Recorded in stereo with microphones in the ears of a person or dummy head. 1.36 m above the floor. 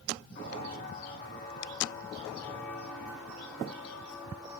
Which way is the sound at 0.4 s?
40° left (ahead or behind).